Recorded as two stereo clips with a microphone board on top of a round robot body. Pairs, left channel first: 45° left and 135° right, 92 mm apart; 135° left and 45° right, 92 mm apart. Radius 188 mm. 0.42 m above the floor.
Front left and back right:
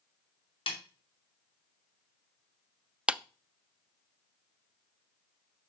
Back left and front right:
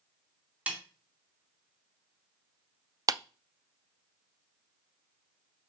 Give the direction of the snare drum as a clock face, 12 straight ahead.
11 o'clock.